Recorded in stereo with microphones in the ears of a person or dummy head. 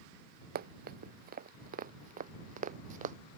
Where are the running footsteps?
55° right (ahead or behind); by 3.1 s 45° right (ahead or behind).